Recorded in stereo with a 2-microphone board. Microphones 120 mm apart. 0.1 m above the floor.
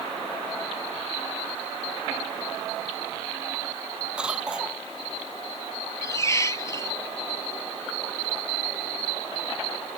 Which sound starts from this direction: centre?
A cough, at 4.2 s.